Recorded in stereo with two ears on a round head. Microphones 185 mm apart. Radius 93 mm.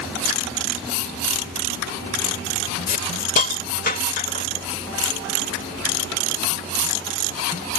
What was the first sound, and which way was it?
A hiss, 45° left (ahead or behind).